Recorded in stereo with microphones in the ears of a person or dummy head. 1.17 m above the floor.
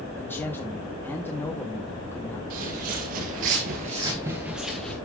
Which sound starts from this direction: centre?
A man speaking, at 0.2 s.